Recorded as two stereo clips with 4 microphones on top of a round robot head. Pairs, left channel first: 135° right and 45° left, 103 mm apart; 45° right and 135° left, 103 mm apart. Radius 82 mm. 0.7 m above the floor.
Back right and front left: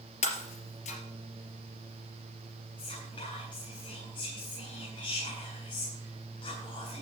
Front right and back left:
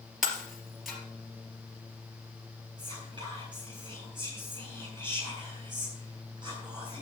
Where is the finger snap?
I don't hear a finger snap.